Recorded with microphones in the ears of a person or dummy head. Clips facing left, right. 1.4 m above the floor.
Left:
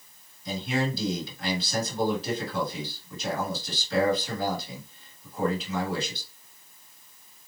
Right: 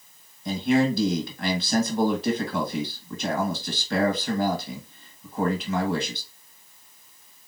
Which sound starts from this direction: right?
A man speaking, at 0.5 s.